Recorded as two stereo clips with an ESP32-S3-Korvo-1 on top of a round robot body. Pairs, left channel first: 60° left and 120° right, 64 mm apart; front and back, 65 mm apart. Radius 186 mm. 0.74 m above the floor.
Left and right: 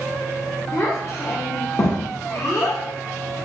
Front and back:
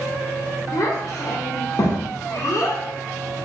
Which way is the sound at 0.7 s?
25° left.